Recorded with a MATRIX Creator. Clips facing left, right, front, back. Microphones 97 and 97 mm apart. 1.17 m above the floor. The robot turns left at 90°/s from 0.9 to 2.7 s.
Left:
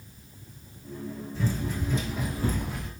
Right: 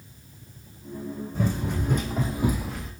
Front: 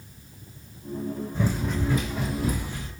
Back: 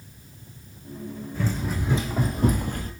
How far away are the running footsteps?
About 3.5 m.